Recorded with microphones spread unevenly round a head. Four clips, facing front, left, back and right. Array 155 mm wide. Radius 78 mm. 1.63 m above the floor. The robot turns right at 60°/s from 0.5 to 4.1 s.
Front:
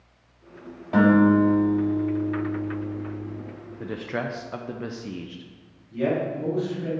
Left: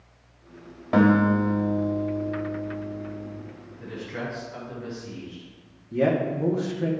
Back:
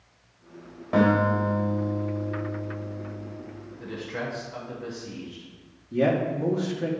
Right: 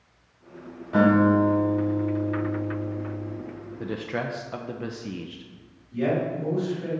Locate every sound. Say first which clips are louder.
0.9 s a guitar: right 1 dB, front 4 dB; 110° left, 2.0 m; by 3.4 s 105° right, 2.0 m
3.8 s a man speaking: right 4 dB, front 4 dB; 55° right, 0.6 m; by 5.5 s 35° right, 0.6 m
5.9 s a man speaking: left 2 dB, back 2 dB; 130° left, 1.5 m